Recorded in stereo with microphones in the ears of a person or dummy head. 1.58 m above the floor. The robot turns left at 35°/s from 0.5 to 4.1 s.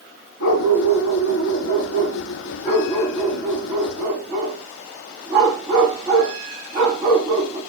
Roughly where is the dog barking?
Left.